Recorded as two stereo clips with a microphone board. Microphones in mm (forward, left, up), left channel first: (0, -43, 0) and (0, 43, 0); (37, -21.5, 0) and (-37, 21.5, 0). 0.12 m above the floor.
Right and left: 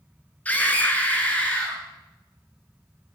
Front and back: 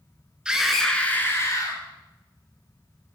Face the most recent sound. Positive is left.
turn(degrees=-20)